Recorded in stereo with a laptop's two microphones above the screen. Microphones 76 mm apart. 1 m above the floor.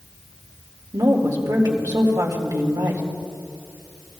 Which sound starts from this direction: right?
A woman speaking, at 0.9 s.